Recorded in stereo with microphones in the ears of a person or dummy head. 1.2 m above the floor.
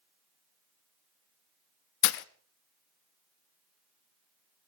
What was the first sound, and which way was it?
Breaking glass, 55° left (ahead or behind).